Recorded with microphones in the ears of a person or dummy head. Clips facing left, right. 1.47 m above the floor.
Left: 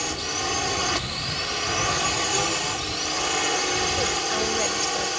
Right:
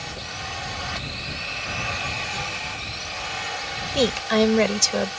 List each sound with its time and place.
0.0 s a drone: 55° left (ahead or behind)
3.9 s a woman speaking: 75° right (ahead or behind)